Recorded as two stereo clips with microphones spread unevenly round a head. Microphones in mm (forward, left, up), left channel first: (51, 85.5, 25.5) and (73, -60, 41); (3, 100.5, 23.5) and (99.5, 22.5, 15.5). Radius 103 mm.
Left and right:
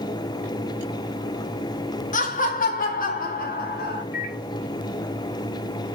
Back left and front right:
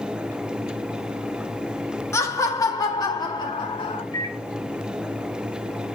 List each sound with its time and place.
2.1 s laughter: 70° left, 1.9 m; by 4.0 s 90° left, 2.5 m
4.1 s a microwave: 80° left, 3.5 m